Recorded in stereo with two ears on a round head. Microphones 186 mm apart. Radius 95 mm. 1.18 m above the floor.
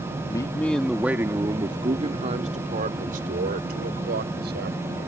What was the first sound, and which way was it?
A man speaking, 20° left (ahead or behind).